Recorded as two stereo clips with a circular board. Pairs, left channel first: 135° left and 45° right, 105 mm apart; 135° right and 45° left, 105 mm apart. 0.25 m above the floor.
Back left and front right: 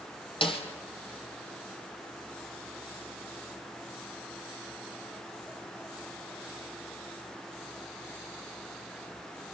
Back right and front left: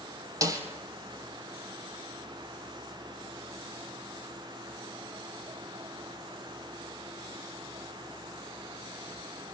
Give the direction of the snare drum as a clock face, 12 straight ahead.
9 o'clock.